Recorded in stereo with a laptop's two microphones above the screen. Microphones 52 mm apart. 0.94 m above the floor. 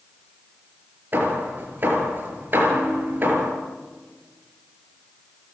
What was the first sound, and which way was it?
Hammering, 40° right (ahead or behind).